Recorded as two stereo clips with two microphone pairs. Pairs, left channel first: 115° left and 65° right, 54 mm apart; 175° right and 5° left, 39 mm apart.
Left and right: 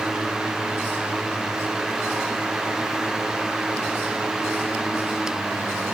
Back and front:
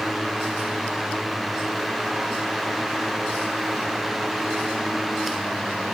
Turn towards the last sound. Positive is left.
No sound to turn to.